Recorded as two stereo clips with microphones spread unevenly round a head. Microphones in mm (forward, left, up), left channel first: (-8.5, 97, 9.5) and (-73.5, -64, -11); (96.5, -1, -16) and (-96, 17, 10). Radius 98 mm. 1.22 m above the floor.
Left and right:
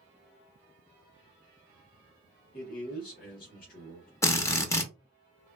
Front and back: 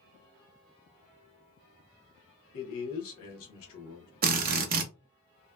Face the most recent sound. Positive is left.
turn(degrees=145)